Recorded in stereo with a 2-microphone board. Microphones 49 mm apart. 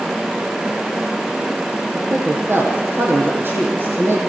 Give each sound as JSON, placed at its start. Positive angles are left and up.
{"t": 1.9, "sound": "a man speaking", "side_deg": -50, "distance_m": 6.5}